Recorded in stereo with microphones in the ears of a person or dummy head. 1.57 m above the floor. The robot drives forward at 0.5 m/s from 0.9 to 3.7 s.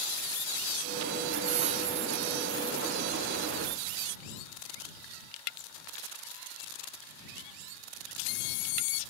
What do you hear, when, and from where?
1.4 s a hiss: 40° right (ahead or behind); by 3.0 s 35° right (ahead or behind)